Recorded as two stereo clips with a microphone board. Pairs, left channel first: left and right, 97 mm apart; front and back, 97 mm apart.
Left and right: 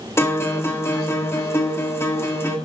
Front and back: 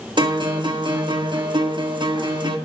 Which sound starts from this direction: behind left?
A guitar, at 0.2 s.